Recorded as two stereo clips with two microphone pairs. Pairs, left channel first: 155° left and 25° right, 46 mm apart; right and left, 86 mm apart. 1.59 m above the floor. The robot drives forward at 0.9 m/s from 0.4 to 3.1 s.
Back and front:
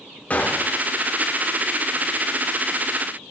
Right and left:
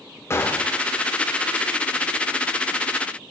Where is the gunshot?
150° right, 1.0 m; by 0.9 s 160° right, 1.3 m.